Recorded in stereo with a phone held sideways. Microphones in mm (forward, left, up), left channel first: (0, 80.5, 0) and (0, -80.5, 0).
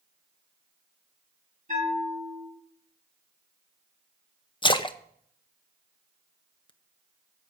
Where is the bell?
50° right (ahead or behind), 8.5 m.